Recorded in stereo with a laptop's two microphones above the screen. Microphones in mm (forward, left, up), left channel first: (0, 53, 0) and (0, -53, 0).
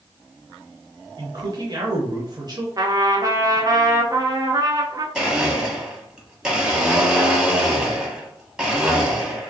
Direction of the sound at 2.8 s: 35° right (ahead or behind).